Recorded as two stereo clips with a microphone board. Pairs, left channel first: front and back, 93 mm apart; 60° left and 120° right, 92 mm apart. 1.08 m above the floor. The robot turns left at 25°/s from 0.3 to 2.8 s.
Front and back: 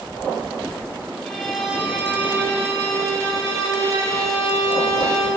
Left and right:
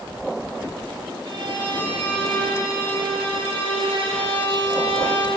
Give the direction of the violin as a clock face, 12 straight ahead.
3 o'clock.